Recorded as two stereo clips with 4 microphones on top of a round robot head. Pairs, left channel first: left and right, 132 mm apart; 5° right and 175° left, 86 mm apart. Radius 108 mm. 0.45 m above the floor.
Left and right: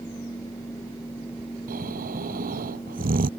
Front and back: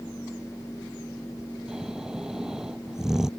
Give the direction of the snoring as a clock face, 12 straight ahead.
3 o'clock.